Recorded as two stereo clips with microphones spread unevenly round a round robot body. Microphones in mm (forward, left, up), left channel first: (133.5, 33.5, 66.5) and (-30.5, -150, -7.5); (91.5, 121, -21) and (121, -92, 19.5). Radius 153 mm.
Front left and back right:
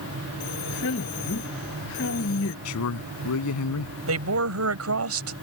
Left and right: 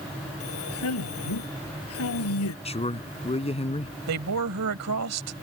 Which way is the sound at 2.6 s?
35° left.